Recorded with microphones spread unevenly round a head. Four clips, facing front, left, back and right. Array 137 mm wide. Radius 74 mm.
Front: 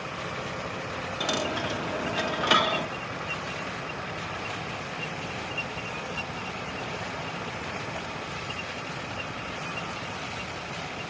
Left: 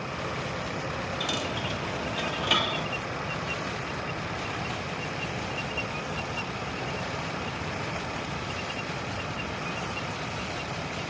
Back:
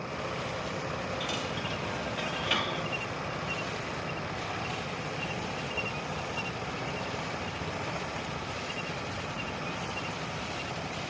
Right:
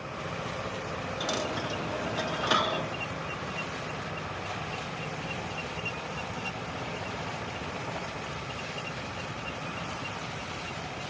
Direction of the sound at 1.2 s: 30° right.